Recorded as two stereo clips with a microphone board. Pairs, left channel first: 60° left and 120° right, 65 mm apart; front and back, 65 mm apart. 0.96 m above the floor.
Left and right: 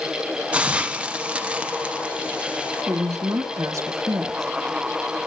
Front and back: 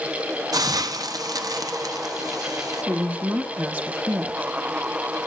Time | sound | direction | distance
0.5 | a hiss | 170° left | 0.5 m
2.9 | a woman speaking | 120° right | 1.0 m